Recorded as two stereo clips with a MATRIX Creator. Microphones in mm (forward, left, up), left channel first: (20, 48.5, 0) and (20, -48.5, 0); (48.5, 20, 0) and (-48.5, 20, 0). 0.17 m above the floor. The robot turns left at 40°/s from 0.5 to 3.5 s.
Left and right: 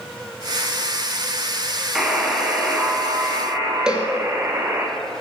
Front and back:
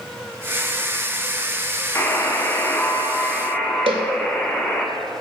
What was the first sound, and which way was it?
A buzzer, 10° right.